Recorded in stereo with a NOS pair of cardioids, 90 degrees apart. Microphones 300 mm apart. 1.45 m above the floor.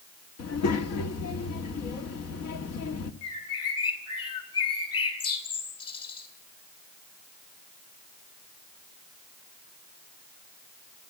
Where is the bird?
55° left, 8 m.